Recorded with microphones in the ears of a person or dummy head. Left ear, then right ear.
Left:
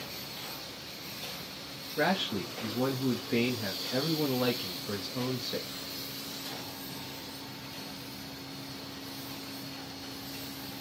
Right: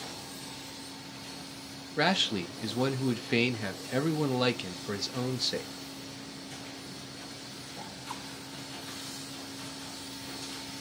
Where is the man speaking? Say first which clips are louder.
Right 2 dB; 40° right (ahead or behind), 0.8 m.